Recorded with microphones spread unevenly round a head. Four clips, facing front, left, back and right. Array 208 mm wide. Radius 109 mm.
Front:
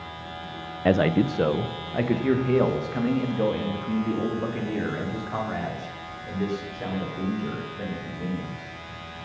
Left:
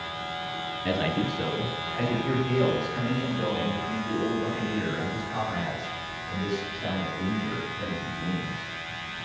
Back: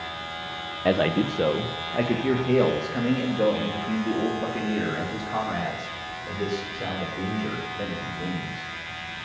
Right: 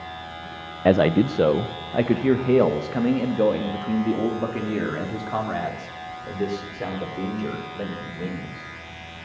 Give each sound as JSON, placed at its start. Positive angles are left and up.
{"t": 0.8, "sound": "a man speaking", "azimuth_deg": -85, "distance_m": 0.6}